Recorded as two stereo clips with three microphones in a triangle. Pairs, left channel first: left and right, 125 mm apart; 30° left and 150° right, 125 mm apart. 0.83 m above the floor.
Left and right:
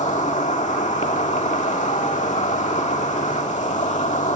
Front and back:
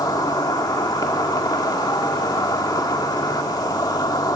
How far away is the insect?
About 1.6 m.